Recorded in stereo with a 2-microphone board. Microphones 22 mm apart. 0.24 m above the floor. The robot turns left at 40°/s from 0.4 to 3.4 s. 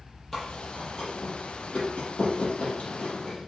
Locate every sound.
0.3 s chewing: 15° left (ahead or behind), 6 m; by 3.5 s 45° left (ahead or behind), 6 m